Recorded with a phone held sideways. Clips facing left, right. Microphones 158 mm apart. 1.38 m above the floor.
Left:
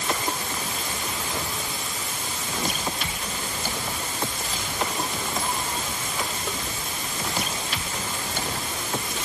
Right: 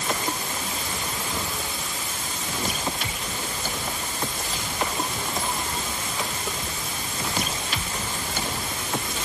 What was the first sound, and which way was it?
Only background noise.